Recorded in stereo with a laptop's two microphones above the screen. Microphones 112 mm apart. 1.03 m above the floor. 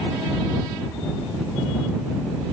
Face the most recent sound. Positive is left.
No sound to turn to.